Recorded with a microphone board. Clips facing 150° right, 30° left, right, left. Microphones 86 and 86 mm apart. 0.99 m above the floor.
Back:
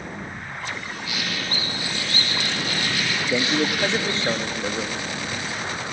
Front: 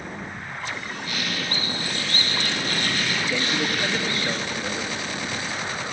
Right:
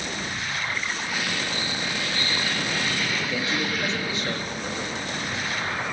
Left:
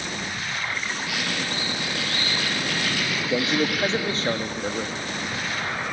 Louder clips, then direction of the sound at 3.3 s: Back 6 dB, left 4 dB; 145° left.